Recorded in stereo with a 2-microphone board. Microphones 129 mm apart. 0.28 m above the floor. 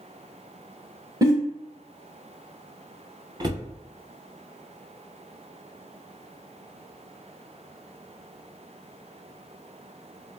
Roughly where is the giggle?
Right.